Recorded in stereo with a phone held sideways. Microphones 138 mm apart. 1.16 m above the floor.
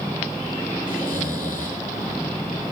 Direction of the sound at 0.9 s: 90° left.